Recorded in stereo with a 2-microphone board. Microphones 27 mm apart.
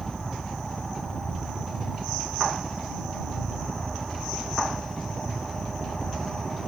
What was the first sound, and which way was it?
A helicopter, 20° right (ahead or behind).